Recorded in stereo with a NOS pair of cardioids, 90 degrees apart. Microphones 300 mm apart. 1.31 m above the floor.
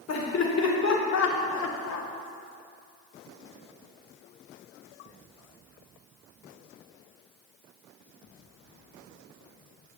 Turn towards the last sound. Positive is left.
turn(degrees=75)